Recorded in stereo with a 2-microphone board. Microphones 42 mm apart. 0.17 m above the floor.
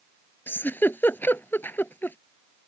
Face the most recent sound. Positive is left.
turn(degrees=60)  # may be behind; listen again after turning